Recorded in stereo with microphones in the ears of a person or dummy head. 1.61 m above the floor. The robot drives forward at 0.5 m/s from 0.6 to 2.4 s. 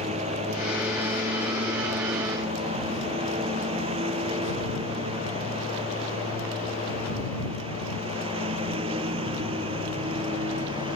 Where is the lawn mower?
35° right (ahead or behind); by 11.0 s 30° right (ahead or behind).